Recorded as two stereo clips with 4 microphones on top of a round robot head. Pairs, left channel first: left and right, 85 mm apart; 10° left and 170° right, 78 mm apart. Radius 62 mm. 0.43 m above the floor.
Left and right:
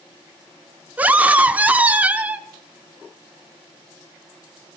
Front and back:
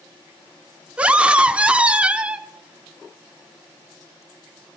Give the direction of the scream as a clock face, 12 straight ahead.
4 o'clock.